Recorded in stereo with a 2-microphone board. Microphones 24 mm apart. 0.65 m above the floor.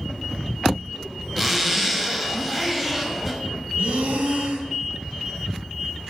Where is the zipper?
10° right (ahead or behind), 0.6 m.